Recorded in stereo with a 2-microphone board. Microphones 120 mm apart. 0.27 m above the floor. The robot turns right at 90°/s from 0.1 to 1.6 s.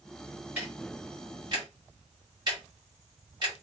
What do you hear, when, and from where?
0.6 s ticking: 10° right (ahead or behind), 1.9 m; by 3.5 s 40° right (ahead or behind), 1.9 m